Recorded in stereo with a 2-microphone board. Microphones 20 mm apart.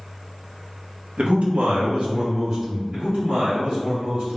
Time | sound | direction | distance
1.2 | a man speaking | 65° right (ahead or behind) | 0.7 m
2.9 | a man speaking | 55° right (ahead or behind) | 1.2 m